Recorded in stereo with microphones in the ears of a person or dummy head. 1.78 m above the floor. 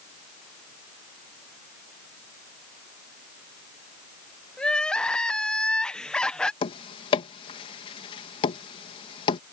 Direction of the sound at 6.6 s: 35° left (ahead or behind).